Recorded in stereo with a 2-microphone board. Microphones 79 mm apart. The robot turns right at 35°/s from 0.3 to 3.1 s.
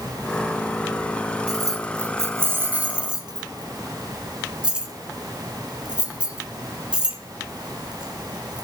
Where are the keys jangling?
50° right (ahead or behind), 1.2 m; by 8.6 s 10° right (ahead or behind), 1.2 m.